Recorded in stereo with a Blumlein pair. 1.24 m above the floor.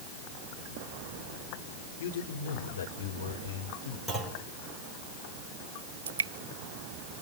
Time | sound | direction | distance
2.0 | a man speaking | 55° left | 3 m
4.1 | a clunk | 5° right | 5.5 m
6.1 | dripping | 65° right | 1.2 m